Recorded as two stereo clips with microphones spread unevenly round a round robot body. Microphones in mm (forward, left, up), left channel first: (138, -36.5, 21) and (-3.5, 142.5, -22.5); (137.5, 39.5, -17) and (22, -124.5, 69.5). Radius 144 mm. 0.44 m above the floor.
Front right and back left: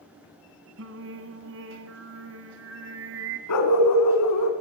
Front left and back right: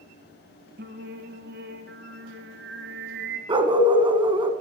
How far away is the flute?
No flute in this recording.